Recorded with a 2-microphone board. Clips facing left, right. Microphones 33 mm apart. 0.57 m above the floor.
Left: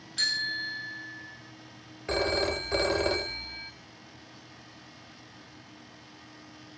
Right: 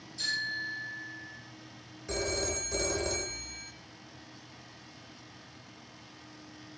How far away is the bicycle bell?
About 6 m.